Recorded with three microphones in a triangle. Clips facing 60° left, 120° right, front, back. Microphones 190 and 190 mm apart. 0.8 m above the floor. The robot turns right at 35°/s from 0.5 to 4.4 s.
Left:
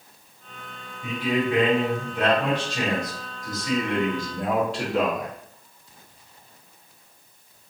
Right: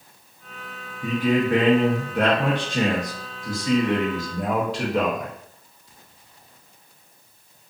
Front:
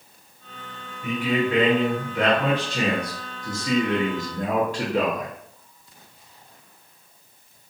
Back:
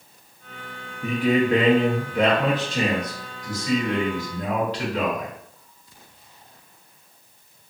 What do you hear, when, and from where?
1.0 s a man speaking: 150° right, 0.8 m; by 5.3 s 30° right, 0.8 m